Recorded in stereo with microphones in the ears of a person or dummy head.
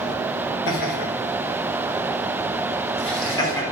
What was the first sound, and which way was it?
Laughter, 55° left (ahead or behind).